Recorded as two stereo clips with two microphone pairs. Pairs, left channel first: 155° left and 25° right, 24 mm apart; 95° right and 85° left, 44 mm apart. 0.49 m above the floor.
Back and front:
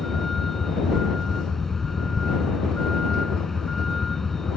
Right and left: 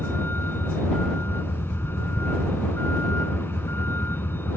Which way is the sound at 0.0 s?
130° right.